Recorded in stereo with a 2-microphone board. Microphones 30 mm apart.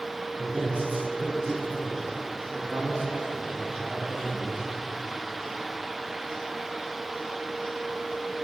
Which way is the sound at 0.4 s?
60° right (ahead or behind).